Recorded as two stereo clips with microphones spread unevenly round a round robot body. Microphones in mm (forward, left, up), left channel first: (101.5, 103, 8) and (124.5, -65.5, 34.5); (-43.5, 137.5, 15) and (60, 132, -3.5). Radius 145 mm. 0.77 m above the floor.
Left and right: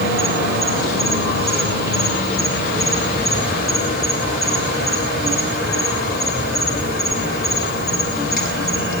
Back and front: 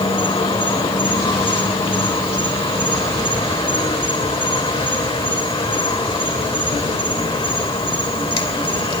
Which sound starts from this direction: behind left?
An insect, at 0.0 s.